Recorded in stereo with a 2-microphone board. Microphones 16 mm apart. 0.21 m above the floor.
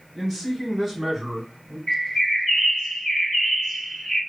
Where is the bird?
20° left (ahead or behind), 2.5 m.